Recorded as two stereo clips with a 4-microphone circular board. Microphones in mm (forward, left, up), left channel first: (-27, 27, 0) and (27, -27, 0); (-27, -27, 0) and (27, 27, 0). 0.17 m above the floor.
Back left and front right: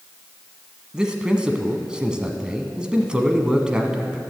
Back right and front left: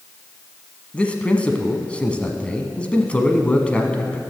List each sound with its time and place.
0.9 s a man speaking: 100° right, 1.0 m